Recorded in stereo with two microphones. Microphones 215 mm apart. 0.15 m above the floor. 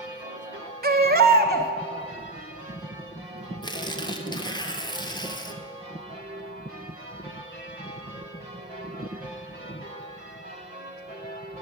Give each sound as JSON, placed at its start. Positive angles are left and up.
{"t": 0.8, "sound": "a baby crying", "side_deg": -45, "distance_m": 0.7}
{"t": 3.6, "sound": "tearing paper", "side_deg": 20, "distance_m": 0.7}